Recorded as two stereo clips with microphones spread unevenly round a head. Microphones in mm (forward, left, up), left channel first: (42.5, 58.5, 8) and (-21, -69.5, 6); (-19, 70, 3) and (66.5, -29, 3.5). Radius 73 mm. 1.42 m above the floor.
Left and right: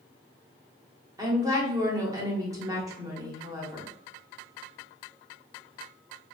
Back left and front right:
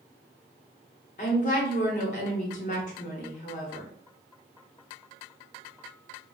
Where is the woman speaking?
175° left, 1.1 m.